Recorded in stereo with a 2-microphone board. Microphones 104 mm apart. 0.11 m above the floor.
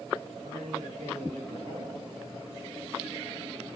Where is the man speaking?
80° right, 7.5 m.